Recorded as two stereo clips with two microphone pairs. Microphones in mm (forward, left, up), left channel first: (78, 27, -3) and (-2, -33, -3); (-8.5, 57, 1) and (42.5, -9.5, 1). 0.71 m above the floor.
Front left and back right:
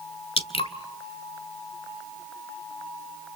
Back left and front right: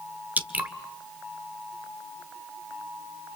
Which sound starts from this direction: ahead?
Dripping, at 0.4 s.